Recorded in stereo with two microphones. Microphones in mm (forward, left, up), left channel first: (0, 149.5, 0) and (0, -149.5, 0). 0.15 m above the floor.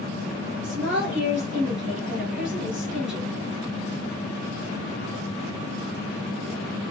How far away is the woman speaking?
About 2.5 m.